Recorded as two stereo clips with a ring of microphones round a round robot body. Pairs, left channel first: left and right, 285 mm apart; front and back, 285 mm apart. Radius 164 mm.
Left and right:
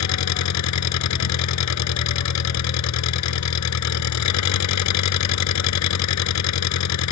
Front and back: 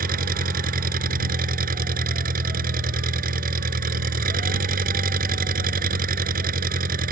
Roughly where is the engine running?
Behind left.